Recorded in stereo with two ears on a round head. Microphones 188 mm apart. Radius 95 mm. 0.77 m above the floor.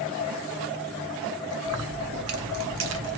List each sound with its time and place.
1.7 s keys jangling: 85° right, 1.5 m; by 3.2 s 50° right (ahead or behind), 1.1 m